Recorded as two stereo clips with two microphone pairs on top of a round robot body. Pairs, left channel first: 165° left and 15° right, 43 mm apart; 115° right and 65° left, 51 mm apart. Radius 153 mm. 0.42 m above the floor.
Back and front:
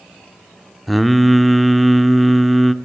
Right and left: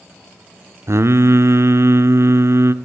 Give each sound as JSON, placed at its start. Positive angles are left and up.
{"t": 0.9, "sound": "singing", "azimuth_deg": 75, "distance_m": 1.2}